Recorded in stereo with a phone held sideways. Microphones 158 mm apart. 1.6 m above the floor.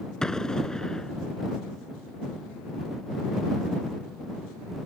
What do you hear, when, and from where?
0.2 s an explosion: 5° left (ahead or behind)